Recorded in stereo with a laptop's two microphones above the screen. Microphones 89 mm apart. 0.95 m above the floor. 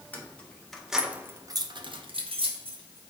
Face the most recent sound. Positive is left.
turn(degrees=-80)